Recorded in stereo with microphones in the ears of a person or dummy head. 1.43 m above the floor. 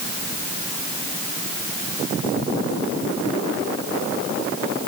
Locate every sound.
Only background noise.